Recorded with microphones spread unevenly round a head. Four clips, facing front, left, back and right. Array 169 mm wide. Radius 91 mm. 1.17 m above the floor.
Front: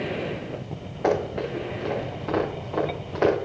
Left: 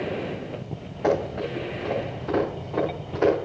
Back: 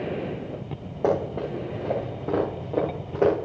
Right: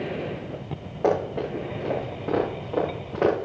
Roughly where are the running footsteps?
Behind right.